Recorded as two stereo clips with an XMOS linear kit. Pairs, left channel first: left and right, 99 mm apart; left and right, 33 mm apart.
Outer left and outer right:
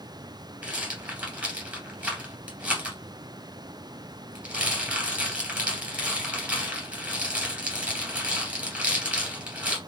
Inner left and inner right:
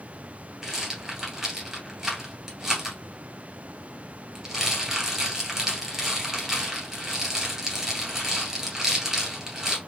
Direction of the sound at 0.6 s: 15° right (ahead or behind).